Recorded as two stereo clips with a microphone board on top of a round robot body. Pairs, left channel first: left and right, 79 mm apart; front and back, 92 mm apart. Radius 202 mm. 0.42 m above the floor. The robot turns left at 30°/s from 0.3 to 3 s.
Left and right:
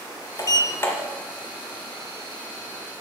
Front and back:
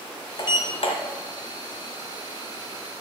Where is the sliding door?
45° left, 1.1 m; by 0.9 s 30° left, 1.1 m.